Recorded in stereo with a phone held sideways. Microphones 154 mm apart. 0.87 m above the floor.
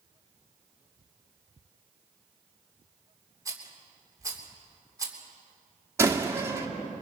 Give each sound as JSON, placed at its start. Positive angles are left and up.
{"t": 3.5, "sound": "a rattle", "side_deg": -25, "distance_m": 3.0}
{"t": 6.0, "sound": "a door slam", "side_deg": -20, "distance_m": 1.5}